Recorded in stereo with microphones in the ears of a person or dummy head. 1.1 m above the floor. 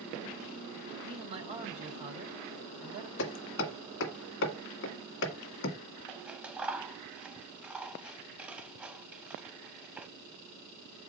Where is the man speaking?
30° right (ahead or behind), 4.5 m.